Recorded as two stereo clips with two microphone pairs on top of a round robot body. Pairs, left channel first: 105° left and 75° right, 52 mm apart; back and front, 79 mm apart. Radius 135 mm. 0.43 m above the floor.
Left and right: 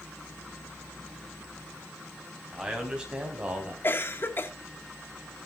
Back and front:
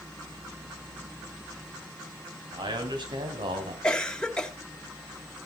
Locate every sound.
2.5 s a man speaking: 5° left, 4.5 m; by 3.7 s 10° right, 4 m
3.8 s a cough: 100° left, 2.5 m